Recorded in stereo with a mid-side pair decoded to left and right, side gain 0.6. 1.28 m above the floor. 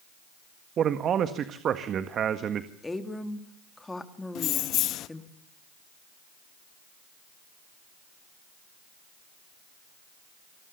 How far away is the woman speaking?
About 3 m.